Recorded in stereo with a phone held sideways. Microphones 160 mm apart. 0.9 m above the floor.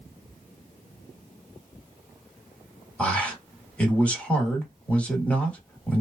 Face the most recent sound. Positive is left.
turn(degrees=10)  # may be behind; listen again after turning